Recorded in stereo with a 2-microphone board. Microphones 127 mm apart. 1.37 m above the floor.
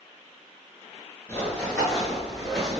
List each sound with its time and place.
1.3 s running footsteps: 15° left (ahead or behind), 1.3 m; by 2.8 s 5° right (ahead or behind), 1.5 m